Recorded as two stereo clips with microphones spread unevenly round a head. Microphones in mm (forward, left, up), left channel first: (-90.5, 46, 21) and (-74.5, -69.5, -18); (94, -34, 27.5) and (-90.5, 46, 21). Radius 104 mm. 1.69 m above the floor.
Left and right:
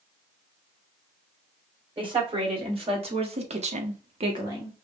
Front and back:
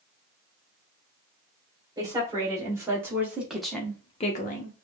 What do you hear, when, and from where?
2.0 s a woman speaking: 130° right, 3 m; by 4.8 s 15° left, 0.9 m